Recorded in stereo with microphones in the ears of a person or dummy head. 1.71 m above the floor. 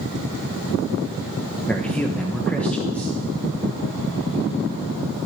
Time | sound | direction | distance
1.7 | a man speaking | 5° left (ahead or behind) | 1.1 m